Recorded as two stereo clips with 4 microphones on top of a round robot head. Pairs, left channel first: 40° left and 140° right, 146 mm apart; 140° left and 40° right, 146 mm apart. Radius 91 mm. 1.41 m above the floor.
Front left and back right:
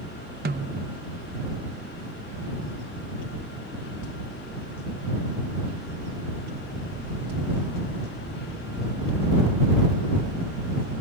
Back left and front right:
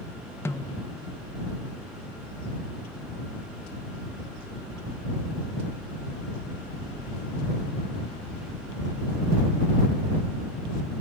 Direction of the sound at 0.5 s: 145° right.